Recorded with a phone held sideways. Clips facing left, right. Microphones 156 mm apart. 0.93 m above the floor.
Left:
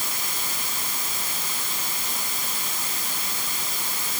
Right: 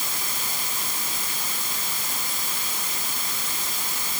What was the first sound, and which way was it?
Only background noise.